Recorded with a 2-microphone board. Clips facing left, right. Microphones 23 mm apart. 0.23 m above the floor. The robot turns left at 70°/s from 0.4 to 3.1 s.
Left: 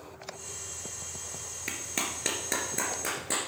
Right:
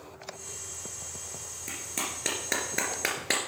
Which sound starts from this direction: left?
A clap, at 1.7 s.